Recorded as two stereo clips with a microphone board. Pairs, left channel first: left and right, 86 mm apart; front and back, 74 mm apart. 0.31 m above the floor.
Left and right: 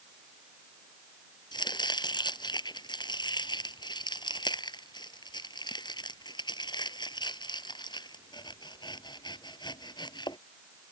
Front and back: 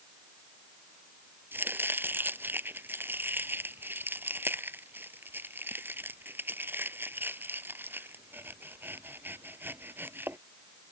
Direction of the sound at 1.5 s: 120° left.